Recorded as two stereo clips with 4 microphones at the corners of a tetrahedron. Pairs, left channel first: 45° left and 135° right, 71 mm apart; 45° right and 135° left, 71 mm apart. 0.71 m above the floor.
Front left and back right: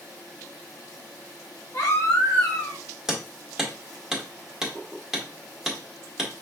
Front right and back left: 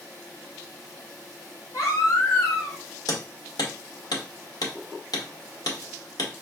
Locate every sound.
1.7 s a baby crying: straight ahead, 2.5 m
3.1 s hammering: 55° right, 1.4 m